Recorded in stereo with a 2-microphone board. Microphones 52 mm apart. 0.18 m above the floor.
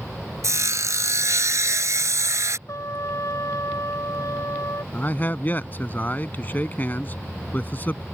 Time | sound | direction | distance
0.4 | sawing | 70° right (ahead or behind) | ?
2.7 | a trumpet | 70° left (ahead or behind) | ?
4.9 | a man speaking | 35° left (ahead or behind) | ?